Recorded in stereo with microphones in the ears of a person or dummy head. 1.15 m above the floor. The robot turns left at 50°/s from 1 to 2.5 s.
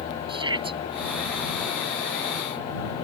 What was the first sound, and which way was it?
A shout, 35° right (ahead or behind).